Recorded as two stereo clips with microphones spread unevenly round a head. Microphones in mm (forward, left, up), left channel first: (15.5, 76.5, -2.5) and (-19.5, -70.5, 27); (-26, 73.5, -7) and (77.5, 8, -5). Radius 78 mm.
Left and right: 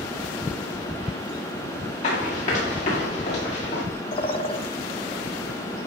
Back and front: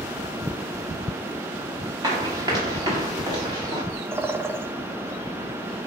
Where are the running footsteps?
30° left, 7 m; by 3.8 s 25° left, 6 m.